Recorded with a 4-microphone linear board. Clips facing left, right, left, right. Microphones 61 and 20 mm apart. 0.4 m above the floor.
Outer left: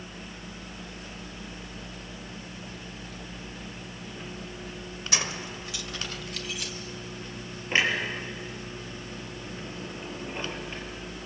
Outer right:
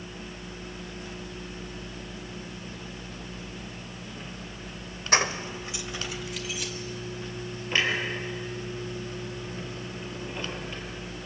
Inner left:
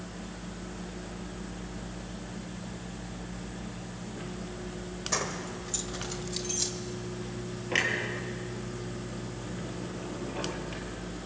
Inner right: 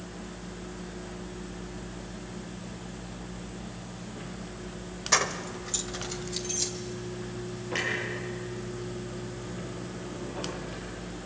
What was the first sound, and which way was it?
Keys jangling, 40° right (ahead or behind).